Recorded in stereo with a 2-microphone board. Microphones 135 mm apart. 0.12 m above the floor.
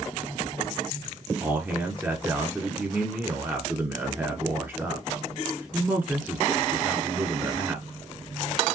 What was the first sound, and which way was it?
A man speaking, 15° right (ahead or behind).